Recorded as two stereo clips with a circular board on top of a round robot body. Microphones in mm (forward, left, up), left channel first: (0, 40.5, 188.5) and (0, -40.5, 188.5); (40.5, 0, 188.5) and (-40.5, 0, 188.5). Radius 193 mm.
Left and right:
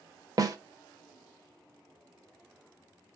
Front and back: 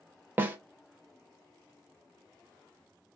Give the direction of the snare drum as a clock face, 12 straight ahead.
4 o'clock.